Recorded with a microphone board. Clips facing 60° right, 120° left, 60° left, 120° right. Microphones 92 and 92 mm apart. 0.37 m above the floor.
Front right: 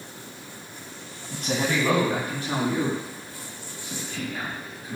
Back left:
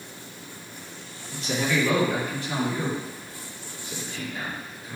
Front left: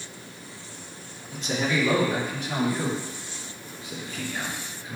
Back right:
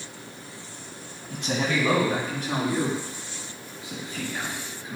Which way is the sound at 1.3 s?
95° right.